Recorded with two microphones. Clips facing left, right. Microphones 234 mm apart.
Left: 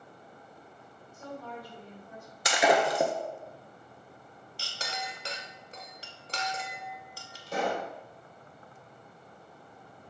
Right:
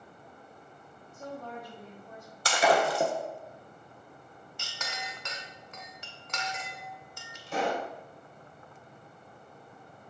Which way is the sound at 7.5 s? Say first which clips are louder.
Even; 40° left (ahead or behind).